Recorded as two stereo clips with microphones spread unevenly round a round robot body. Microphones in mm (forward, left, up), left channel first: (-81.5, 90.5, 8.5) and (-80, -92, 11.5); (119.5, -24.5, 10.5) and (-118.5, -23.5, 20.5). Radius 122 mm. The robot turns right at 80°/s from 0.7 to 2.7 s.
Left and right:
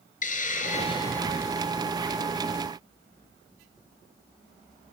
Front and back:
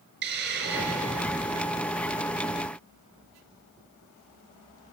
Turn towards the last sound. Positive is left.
turn(degrees=-65)